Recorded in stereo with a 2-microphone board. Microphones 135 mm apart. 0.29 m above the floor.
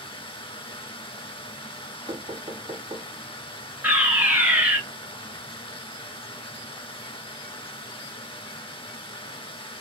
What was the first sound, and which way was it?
Running water, 40° left (ahead or behind).